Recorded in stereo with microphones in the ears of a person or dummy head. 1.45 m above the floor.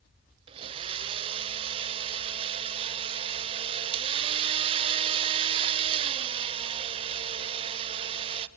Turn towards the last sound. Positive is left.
turn(degrees=-30)  # may be behind; listen again after turning